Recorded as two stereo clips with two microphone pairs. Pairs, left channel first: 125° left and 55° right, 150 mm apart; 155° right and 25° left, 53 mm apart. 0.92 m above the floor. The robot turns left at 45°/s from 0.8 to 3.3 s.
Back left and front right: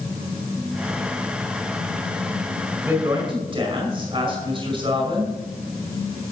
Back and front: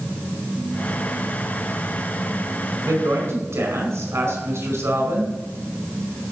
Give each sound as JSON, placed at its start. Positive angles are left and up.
{"t": 2.8, "sound": "a woman speaking", "azimuth_deg": 20, "distance_m": 4.5}